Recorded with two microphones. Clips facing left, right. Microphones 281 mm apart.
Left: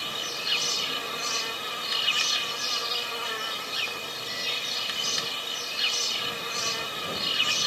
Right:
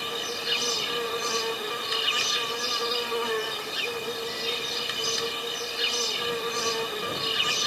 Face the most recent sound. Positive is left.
turn(degrees=-60)  # may be behind; listen again after turning